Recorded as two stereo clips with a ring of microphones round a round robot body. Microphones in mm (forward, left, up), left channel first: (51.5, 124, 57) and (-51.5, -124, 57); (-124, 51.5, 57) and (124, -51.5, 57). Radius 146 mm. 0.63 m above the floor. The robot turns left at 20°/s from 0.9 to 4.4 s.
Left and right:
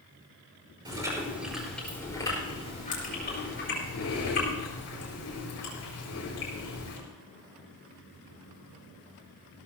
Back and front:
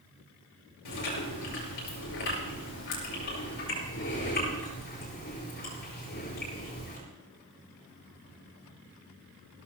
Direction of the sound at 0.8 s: 170° left.